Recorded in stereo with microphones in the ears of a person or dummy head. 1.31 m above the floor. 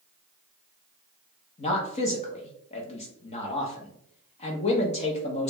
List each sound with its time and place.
1.6 s a man speaking: 35° left (ahead or behind), 0.7 m